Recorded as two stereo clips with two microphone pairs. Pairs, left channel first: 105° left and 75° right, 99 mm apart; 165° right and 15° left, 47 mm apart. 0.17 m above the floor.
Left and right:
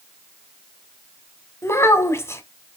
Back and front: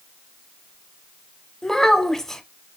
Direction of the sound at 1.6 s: 125° left.